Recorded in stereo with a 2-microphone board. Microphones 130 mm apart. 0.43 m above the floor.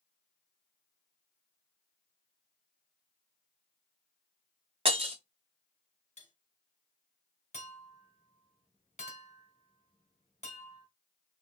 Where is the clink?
65° left (ahead or behind), 2.5 m.